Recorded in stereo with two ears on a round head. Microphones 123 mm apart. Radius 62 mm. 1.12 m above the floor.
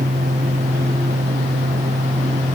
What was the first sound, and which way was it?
Only background noise.